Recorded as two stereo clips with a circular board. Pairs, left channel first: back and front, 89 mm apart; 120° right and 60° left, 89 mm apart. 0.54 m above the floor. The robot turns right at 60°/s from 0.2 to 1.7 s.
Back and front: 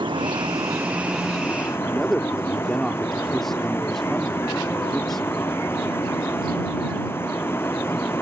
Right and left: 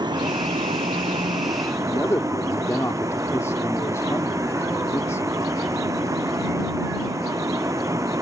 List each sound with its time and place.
0.0 s a vehicle: 25° left; by 8.2 s 115° left
1.9 s a man speaking: 95° right